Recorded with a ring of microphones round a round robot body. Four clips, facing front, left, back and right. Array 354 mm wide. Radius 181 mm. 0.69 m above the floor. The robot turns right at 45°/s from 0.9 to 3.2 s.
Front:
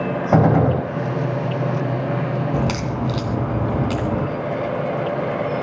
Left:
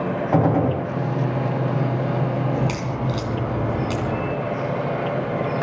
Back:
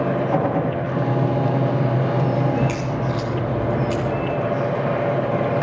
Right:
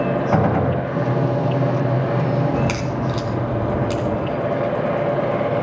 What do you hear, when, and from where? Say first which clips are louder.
0.3 s a gunshot: left 2 dB, front 4 dB; 15° right, 2 m
2.5 s a crack: right 3 dB, even; 25° right, 3 m; by 4.3 s 5° left, 3 m